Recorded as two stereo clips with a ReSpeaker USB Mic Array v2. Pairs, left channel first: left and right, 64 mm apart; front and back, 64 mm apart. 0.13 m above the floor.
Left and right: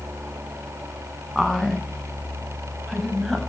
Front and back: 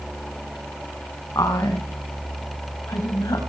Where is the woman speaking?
5° right, 7.5 m; by 3.4 s 10° right, 8.5 m.